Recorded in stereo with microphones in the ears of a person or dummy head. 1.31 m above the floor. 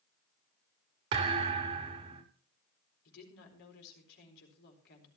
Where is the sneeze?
I don't hear a sneeze.